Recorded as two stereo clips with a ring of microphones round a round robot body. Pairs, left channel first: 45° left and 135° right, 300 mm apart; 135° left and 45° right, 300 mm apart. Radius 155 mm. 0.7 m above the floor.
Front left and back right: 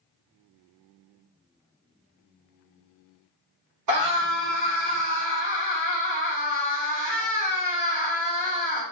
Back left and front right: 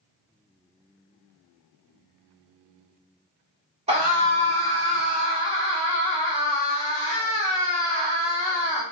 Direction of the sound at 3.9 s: 115° right.